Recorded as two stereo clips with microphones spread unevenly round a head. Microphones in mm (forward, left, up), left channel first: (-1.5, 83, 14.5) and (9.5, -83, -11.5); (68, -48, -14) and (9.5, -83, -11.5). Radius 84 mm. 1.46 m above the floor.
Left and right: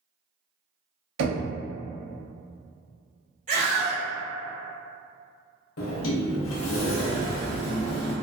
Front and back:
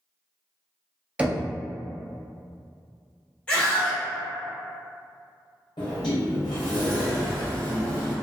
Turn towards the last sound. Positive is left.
turn(degrees=85)